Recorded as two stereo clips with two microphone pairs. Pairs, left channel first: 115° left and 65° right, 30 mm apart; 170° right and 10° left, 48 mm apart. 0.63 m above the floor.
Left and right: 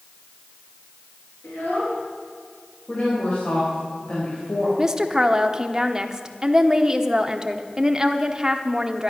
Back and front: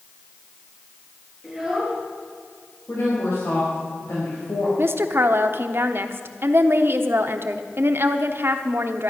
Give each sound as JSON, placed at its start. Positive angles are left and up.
{"t": 1.4, "sound": "a child speaking", "azimuth_deg": 105, "distance_m": 6.0}
{"t": 2.9, "sound": "a woman speaking", "azimuth_deg": 160, "distance_m": 3.5}
{"t": 4.8, "sound": "a woman speaking", "azimuth_deg": 0, "distance_m": 1.0}